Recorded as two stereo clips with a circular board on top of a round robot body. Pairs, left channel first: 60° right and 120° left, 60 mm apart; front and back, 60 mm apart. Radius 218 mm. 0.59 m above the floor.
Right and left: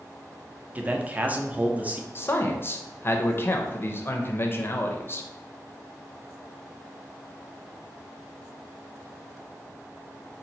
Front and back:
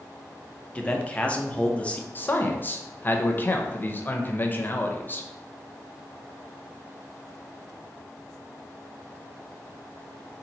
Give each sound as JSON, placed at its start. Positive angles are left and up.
{"t": 0.8, "sound": "a man speaking", "azimuth_deg": 65, "distance_m": 0.8}
{"t": 2.1, "sound": "a man speaking", "azimuth_deg": -40, "distance_m": 0.8}